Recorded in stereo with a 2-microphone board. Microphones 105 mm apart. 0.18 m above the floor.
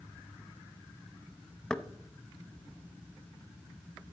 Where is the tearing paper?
No tearing paper in this recording.